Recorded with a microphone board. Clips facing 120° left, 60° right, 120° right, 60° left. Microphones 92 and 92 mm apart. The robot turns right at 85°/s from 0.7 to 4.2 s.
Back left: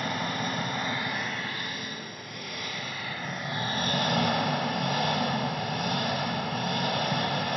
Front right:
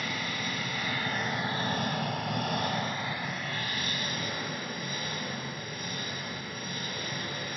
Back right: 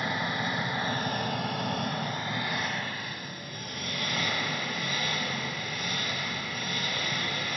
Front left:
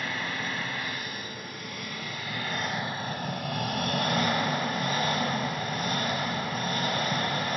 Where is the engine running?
165° left, 1.9 m; by 7.6 s 100° left, 1.9 m.